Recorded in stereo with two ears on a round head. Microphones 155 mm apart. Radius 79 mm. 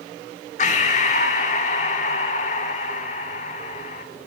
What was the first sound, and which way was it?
Breathing, 45° left (ahead or behind).